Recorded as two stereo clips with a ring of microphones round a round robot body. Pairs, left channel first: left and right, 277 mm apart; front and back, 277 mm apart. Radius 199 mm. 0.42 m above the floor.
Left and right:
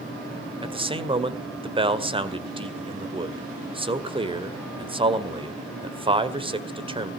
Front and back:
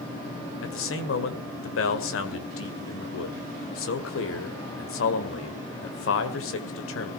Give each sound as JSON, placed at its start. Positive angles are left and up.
{"t": 0.6, "sound": "a man speaking", "azimuth_deg": -25, "distance_m": 1.9}